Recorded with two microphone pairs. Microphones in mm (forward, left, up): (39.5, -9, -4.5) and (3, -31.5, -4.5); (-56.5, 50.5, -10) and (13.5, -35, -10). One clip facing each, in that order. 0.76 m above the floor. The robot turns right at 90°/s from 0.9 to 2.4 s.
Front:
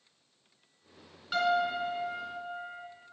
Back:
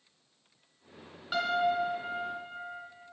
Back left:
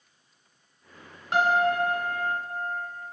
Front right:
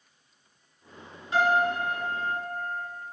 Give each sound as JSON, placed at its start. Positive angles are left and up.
{"t": 1.3, "sound": "a piano", "azimuth_deg": 130, "distance_m": 1.4}